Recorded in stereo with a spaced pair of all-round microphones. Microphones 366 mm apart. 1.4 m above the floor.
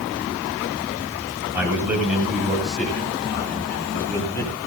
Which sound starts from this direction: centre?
A man speaking, at 1.5 s.